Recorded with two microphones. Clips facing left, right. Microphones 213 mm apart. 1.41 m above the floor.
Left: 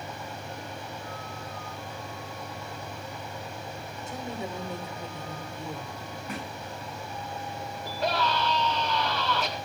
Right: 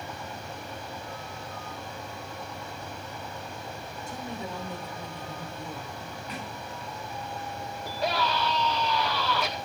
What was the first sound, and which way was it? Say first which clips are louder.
A woman speaking: left 2 dB; 20° left (ahead or behind).